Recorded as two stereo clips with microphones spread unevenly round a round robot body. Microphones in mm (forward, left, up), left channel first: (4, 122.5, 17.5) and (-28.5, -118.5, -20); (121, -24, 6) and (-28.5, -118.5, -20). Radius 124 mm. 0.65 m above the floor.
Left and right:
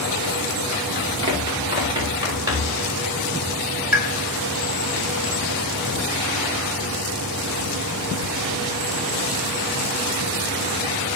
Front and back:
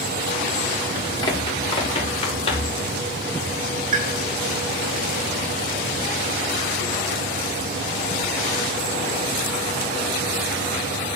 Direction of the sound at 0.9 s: 30° right.